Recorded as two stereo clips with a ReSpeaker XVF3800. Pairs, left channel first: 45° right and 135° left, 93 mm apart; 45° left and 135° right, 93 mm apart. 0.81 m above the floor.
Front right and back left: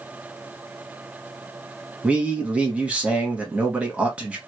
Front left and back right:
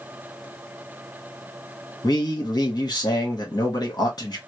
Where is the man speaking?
60° left, 1.4 m.